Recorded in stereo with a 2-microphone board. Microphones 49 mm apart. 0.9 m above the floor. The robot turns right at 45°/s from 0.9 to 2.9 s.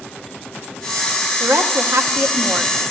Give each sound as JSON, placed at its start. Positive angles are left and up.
{"t": 1.4, "sound": "a woman speaking", "azimuth_deg": -105, "distance_m": 1.1}